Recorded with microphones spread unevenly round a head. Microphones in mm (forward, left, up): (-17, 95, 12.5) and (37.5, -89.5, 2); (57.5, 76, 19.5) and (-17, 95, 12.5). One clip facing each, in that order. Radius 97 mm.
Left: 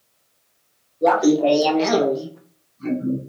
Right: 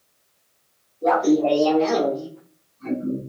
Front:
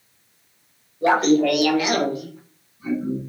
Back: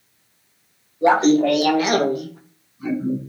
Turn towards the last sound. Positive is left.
turn(degrees=175)